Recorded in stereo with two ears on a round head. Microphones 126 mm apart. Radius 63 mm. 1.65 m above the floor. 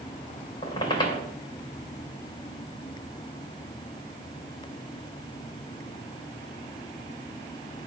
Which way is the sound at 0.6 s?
30° left (ahead or behind).